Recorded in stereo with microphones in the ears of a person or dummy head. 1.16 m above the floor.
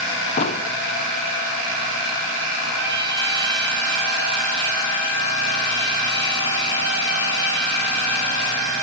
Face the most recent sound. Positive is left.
turn(degrees=-65)  # may be behind; listen again after turning